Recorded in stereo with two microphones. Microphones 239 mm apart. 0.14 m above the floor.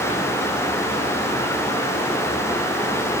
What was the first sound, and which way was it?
Only background noise.